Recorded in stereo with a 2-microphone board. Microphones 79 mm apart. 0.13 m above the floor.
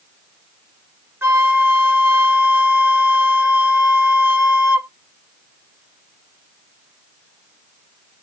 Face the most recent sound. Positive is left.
turn(degrees=-25)  # may be behind; listen again after turning